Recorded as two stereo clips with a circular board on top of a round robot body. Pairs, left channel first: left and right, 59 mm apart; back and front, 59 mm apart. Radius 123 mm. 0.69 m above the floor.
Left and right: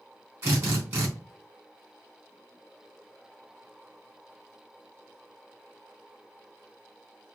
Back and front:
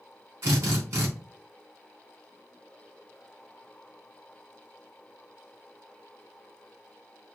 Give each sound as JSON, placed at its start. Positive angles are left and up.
{"t": 0.4, "sound": "a drill", "azimuth_deg": -45, "distance_m": 3.5}